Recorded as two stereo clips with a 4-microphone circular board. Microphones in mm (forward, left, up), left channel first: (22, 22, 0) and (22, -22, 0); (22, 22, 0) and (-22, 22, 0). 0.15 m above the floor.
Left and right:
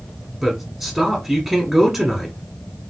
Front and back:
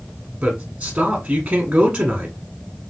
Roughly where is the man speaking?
Behind right.